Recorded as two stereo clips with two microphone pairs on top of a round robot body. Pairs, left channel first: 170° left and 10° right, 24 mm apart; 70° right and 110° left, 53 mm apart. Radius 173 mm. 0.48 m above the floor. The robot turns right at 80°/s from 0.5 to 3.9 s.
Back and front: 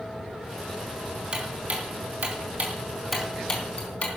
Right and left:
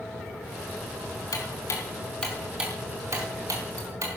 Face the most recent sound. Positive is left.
turn(degrees=135)